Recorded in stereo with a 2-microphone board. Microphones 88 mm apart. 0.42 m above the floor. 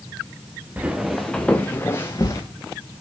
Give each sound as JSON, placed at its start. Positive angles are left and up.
{"t": 0.8, "sound": "footsteps", "side_deg": -15, "distance_m": 1.4}